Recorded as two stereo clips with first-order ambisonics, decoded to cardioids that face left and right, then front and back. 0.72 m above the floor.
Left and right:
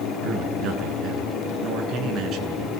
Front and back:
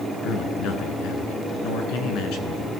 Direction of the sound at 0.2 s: 35° right.